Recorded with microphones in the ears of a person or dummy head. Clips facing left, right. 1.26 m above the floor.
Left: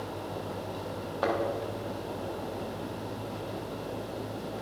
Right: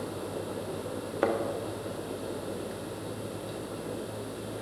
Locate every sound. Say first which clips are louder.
1.2 s a thud: right 2 dB; 30° right (ahead or behind), 0.9 m